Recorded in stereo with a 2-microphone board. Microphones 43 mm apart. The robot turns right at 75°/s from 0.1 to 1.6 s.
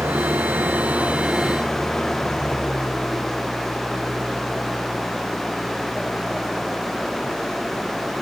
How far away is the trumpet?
I don't hear a trumpet.